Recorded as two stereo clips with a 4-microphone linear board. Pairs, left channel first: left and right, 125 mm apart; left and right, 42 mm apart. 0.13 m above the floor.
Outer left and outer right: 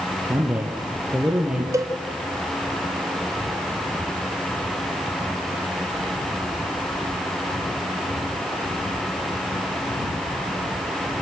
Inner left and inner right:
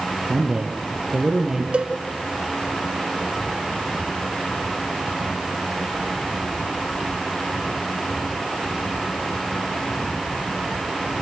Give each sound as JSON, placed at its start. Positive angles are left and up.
{"t": 0.3, "sound": "a man speaking", "side_deg": -15, "distance_m": 3.5}
{"t": 1.7, "sound": "a cowbell", "side_deg": -25, "distance_m": 1.6}